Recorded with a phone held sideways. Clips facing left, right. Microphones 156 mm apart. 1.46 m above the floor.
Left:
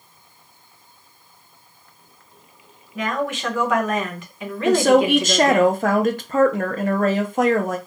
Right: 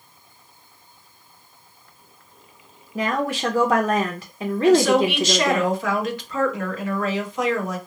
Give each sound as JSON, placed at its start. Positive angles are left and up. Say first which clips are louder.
{"t": 3.0, "sound": "a woman speaking", "louder": "right 1 dB", "side_deg": -35, "distance_m": 0.5}
{"t": 4.7, "sound": "a woman speaking", "louder": "left 1 dB", "side_deg": 50, "distance_m": 0.5}